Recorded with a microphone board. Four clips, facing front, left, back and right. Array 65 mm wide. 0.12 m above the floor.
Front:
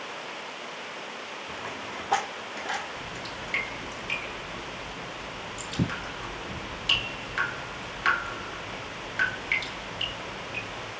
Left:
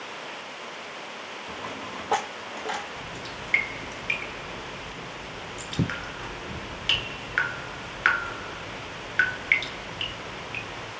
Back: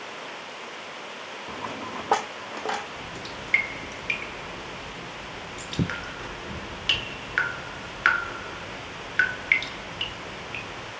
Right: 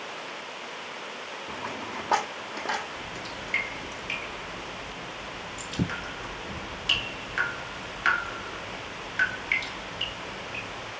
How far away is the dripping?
About 1.3 m.